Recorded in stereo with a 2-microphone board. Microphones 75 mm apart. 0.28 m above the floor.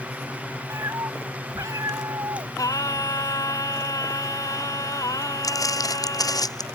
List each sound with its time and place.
0.7 s a cat meowing: 40° right (ahead or behind); by 2.5 s 50° right (ahead or behind)
2.6 s singing: 50° left (ahead or behind)
5.4 s footsteps: 50° left (ahead or behind); by 6.7 s 60° left (ahead or behind)